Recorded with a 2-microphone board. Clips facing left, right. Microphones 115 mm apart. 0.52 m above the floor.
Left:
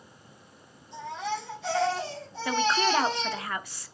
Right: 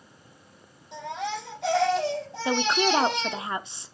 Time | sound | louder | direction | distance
0.9 | a baby crying | right 1 dB | 65° right (ahead or behind) | 6 m
2.5 | a woman speaking | right 1 dB | 25° right (ahead or behind) | 0.7 m